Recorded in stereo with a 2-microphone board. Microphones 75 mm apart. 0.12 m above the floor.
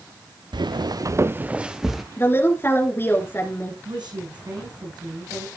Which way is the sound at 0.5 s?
85° right.